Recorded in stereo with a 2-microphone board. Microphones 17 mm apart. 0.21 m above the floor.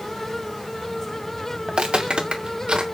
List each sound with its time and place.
1.7 s footsteps: 70° right (ahead or behind), 1.1 m; by 2.8 s 80° right, 2.5 m